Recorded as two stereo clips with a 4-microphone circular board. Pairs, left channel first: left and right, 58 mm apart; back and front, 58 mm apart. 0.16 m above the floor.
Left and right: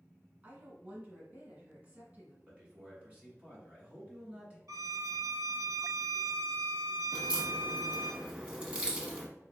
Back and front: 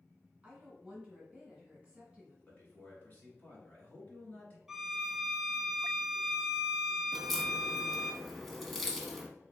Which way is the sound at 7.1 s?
90° right.